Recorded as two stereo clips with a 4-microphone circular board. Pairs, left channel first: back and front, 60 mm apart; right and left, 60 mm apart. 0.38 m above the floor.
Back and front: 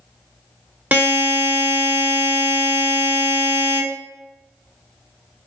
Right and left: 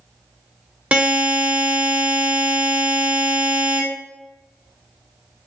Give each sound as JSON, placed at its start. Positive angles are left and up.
{"t": 0.9, "sound": "a buzzer", "azimuth_deg": 40, "distance_m": 0.8}